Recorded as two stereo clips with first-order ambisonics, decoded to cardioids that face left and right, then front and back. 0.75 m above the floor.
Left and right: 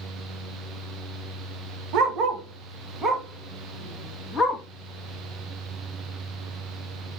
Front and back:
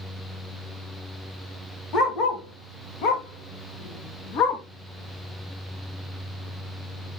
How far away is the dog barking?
About 1.1 m.